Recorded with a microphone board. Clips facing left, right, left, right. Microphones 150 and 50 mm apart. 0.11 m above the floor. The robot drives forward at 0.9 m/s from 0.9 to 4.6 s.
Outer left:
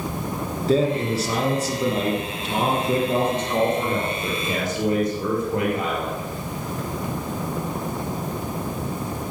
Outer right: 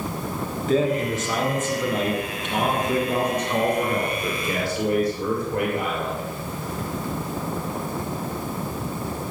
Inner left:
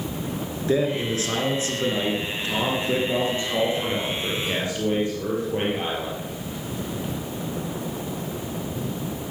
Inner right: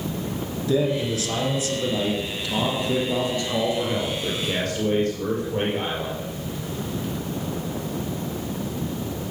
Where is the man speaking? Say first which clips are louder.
Outer left 1 dB, even; 35° left (ahead or behind), 2 m; by 6.3 s 20° left (ahead or behind), 3.5 m.